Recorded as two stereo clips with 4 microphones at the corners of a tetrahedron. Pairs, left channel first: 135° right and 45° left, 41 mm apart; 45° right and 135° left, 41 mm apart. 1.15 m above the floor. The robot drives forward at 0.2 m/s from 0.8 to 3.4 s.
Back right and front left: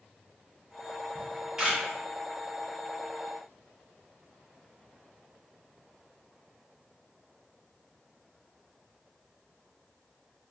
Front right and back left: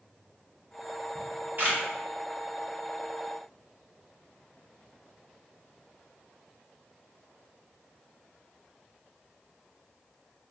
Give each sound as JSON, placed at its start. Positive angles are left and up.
{"t": 1.1, "sound": "a camera shutter", "azimuth_deg": 115, "distance_m": 1.5}